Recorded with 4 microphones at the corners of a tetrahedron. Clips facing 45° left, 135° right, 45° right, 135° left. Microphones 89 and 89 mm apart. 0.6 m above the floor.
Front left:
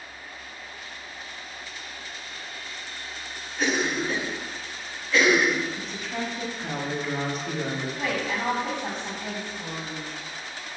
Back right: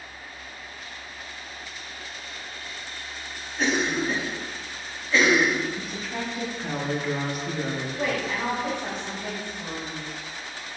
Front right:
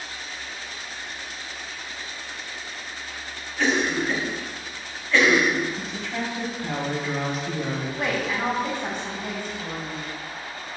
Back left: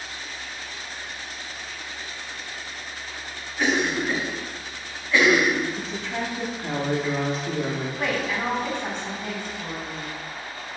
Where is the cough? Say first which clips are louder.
Back right 1 dB, even; 160° right, 1.1 m.